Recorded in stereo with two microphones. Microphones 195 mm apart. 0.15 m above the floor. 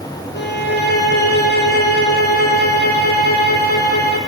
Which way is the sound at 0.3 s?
60° left (ahead or behind).